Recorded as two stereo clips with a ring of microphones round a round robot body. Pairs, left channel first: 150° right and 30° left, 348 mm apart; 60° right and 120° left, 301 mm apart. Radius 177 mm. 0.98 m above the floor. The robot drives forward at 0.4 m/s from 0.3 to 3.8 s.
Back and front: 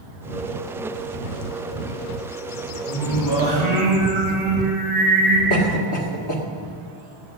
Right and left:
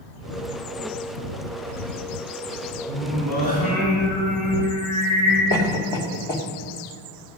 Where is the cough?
125° right, 2 m.